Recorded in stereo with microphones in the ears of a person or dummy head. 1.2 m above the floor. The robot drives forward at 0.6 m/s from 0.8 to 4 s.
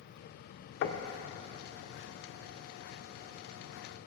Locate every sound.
0.8 s knocking: 70° left (ahead or behind), 0.7 m; by 1.1 s 60° left (ahead or behind), 0.8 m